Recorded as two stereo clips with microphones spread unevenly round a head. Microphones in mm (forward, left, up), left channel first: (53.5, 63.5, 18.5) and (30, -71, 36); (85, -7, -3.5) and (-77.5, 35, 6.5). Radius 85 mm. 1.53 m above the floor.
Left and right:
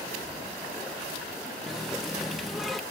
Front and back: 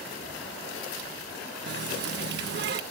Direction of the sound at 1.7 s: 175° left.